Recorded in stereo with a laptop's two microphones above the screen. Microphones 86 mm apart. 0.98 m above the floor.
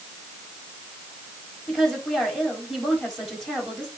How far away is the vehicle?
No vehicle in this recording.